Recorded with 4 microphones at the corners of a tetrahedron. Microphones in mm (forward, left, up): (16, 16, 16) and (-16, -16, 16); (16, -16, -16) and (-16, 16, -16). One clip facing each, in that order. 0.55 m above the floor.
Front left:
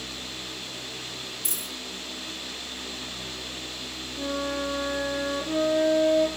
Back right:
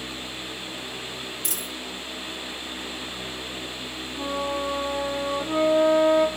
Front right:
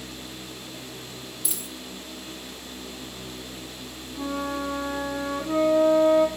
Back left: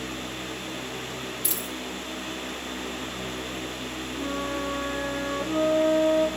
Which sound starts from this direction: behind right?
A dropped coin, at 1.4 s.